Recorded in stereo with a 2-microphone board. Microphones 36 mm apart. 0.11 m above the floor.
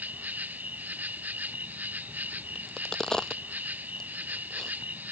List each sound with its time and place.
0.0 s an insect: 45° right (ahead or behind)
2.5 s a crack: 15° left (ahead or behind)